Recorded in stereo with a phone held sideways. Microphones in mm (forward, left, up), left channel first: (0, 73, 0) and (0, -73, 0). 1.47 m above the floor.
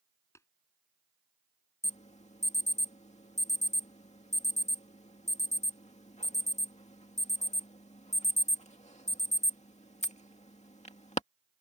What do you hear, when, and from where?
0.3 s tapping: 20° left (ahead or behind)
1.8 s an alarm: 50° left (ahead or behind)